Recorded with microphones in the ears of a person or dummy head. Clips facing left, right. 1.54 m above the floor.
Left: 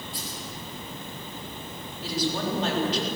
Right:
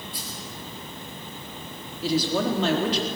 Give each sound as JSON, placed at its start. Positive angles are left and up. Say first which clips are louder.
{"t": 0.1, "sound": "a dropped coin", "louder": "left 1 dB", "side_deg": -60, "distance_m": 8.5}
{"t": 2.0, "sound": "a woman speaking", "louder": "right 5 dB", "side_deg": -65, "distance_m": 4.0}